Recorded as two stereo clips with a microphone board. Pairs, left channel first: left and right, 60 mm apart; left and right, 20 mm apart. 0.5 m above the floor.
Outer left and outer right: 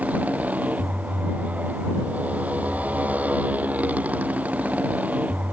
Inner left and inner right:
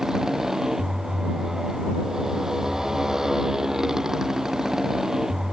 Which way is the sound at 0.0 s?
25° right (ahead or behind).